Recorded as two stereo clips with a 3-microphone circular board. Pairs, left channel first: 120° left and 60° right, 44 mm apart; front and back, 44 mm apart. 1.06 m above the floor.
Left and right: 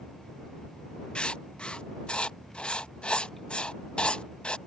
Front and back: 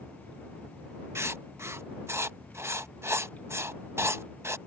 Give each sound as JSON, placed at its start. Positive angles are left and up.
{"t": 1.1, "sound": "writing", "azimuth_deg": -175}